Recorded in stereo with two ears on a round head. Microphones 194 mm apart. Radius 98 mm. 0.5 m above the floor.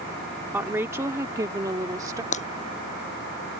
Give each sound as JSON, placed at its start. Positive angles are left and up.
{"t": 0.5, "sound": "a woman speaking", "side_deg": -10}
{"t": 2.3, "sound": "breaking glass", "side_deg": 30}